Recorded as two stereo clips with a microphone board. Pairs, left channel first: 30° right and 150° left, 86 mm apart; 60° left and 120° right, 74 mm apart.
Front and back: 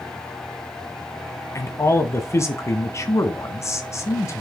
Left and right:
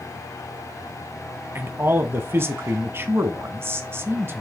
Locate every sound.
1.6 s a man speaking: 75° right, 1.5 m